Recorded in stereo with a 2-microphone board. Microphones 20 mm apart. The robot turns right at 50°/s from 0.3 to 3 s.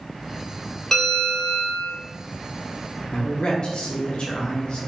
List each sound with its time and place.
0.9 s a bell: 160° left, 1.1 m; by 1.9 s 150° right, 1.1 m
3.1 s a man speaking: 40° left (ahead or behind), 0.5 m